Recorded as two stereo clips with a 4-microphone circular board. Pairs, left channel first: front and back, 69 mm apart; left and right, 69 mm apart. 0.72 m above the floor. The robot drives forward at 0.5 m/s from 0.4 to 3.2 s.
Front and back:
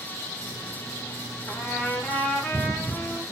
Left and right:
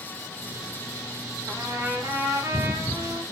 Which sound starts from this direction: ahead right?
A trumpet, at 1.5 s.